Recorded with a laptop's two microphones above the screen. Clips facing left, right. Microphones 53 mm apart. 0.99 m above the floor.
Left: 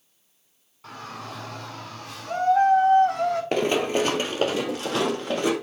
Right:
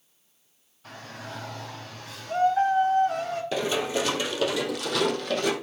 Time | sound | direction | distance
0.8 | a shout | 85° left | 7.5 m
3.5 | running footsteps | 50° left (ahead or behind) | 1.6 m